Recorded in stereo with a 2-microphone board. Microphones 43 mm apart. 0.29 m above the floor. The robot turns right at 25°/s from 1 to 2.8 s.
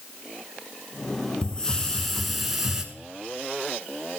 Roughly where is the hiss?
Behind left.